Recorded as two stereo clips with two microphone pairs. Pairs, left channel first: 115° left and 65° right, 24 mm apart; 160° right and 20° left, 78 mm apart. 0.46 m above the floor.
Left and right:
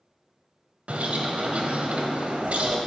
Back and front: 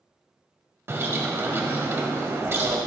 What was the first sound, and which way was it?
A bird, 40° right.